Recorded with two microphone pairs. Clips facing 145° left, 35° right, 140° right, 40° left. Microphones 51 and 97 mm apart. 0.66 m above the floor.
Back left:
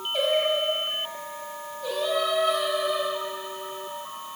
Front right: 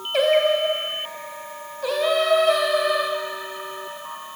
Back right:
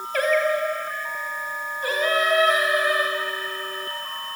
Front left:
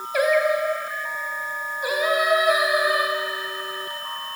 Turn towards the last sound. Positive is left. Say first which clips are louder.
# front right 6 dB, front left 2 dB
turn(degrees=-40)